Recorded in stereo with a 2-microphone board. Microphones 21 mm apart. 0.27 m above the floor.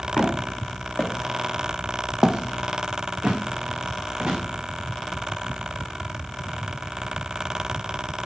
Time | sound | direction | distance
0.2 | footsteps | 55° left (ahead or behind) | 1.9 m